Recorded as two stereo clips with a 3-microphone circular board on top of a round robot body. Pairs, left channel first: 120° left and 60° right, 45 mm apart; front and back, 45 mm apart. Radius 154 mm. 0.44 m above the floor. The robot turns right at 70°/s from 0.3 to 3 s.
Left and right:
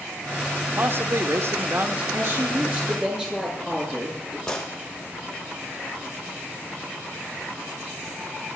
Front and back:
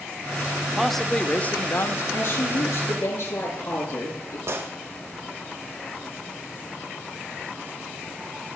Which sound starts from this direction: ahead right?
A woman speaking, at 2.1 s.